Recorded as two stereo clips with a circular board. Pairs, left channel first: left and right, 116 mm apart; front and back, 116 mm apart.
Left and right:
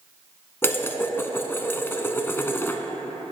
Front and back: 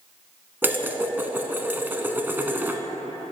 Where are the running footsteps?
No running footsteps in this recording.